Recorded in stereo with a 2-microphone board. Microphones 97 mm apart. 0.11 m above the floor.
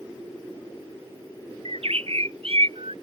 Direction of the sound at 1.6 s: 70° right (ahead or behind).